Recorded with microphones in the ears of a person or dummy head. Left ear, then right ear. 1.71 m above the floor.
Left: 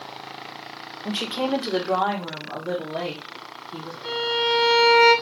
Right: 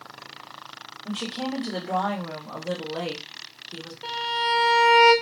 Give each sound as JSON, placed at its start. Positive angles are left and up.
{"t": 1.1, "sound": "a woman speaking", "side_deg": 50, "distance_m": 0.6}
{"t": 4.0, "sound": "a violin", "side_deg": -20, "distance_m": 0.5}